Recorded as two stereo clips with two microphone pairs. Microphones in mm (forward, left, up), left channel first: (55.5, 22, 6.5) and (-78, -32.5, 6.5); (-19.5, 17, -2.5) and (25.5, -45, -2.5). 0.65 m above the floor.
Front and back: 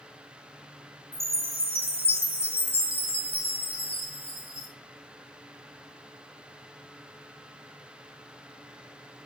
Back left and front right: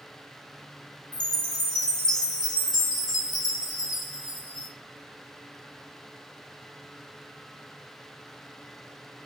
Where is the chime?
155° left, 3 m.